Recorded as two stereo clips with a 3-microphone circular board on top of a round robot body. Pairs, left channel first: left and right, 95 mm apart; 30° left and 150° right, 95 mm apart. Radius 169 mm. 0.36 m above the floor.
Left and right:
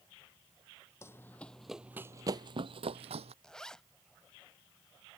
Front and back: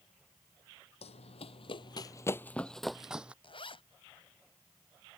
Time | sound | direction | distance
1.0 | running footsteps | 25° left | ?
3.4 | a zipper | 5° left | ?